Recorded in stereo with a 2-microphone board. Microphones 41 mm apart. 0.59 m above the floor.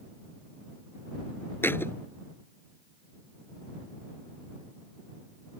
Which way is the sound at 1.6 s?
70° left (ahead or behind).